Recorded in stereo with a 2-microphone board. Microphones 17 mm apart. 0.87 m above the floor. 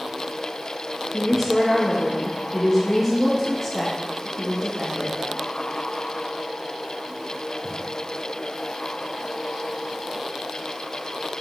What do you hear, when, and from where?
1.1 s a woman speaking: centre (ahead or behind), 1.1 m